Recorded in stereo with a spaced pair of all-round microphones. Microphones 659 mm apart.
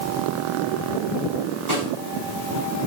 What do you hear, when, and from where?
1.7 s a snare drum: 70° right (ahead or behind), 7 m